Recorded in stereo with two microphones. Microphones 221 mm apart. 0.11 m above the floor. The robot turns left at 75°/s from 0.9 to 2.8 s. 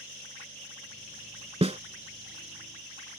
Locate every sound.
1.6 s a snare drum: 25° right (ahead or behind); by 1.8 s 30° right (ahead or behind)